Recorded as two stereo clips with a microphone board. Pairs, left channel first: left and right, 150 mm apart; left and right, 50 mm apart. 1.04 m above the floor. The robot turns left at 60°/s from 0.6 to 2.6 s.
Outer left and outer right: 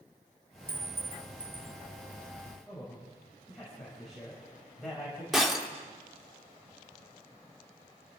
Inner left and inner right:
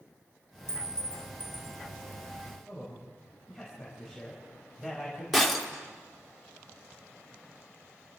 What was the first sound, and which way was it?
A clink, 80° right.